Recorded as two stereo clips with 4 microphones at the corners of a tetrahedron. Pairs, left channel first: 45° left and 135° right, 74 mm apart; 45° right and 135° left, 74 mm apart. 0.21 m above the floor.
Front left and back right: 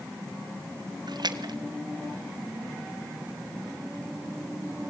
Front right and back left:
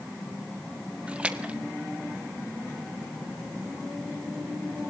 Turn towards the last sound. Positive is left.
turn(degrees=-150)